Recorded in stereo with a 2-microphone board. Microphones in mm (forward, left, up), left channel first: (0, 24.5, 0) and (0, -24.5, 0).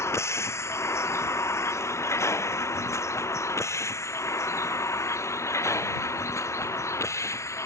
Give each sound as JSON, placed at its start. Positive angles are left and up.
{"t": 0.0, "sound": "a vehicle", "side_deg": 70}